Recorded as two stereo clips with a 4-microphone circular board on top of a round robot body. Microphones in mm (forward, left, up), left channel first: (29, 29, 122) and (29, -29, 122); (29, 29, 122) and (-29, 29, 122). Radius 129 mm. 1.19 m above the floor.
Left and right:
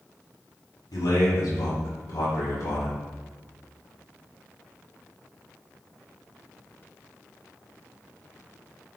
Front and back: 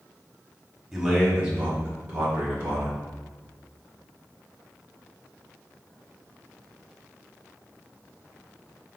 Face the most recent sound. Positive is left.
turn(degrees=125)